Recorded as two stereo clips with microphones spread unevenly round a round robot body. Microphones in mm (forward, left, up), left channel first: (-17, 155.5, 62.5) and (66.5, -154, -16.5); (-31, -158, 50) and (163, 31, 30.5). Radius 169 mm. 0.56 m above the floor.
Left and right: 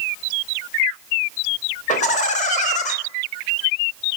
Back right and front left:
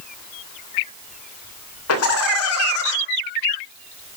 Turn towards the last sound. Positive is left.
turn(degrees=180)